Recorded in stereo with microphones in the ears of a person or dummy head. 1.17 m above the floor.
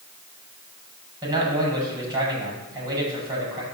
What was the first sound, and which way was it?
A man speaking, 20° right (ahead or behind).